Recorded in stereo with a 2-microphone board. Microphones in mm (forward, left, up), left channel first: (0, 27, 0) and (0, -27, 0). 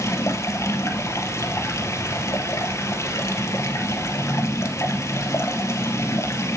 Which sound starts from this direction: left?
Running water, at 0.0 s.